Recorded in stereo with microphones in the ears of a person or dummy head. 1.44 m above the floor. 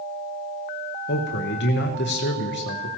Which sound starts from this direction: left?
A man speaking, at 1.1 s.